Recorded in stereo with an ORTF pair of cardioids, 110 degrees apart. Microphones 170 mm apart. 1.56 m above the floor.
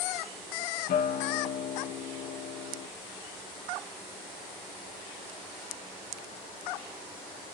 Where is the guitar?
65° left, 0.9 m.